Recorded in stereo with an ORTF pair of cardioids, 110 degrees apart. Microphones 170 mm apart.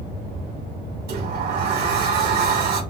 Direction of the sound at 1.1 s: 65° right.